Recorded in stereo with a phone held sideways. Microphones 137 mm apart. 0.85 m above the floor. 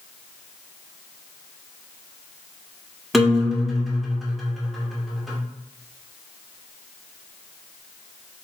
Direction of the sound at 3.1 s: Centre (ahead or behind).